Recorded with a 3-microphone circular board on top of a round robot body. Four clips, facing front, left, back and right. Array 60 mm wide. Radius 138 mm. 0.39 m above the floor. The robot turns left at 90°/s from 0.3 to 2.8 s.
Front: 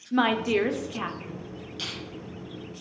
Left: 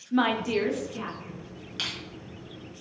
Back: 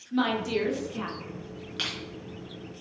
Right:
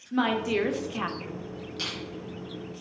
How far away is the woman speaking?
About 1.9 m.